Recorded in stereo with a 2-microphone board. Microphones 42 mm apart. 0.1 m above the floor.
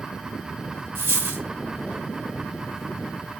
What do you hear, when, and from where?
0.9 s a dropped coin: 75° right (ahead or behind), 0.6 m